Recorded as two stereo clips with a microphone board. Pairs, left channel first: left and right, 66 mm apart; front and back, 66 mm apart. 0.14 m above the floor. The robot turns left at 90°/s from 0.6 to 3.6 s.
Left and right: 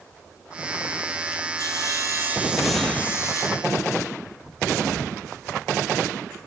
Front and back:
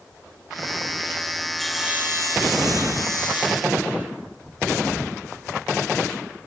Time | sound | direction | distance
1.6 | sawing | 80° right | 4 m